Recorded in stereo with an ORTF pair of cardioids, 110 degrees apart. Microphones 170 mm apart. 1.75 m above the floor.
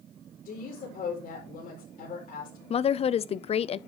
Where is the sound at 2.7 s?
40° left, 0.6 m.